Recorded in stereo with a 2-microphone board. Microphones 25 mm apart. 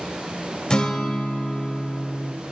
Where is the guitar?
40° left (ahead or behind), 1.1 m.